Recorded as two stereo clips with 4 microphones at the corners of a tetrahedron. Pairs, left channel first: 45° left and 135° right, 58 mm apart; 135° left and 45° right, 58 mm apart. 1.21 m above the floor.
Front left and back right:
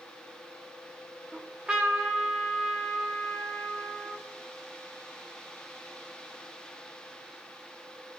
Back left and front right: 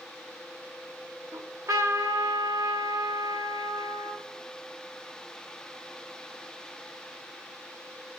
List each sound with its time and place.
1.3 s a trumpet: 55° right, 1.4 m